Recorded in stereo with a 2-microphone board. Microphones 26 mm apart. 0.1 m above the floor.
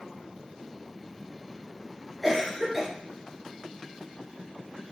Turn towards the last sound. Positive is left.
turn(degrees=-15)  # may be behind; listen again after turning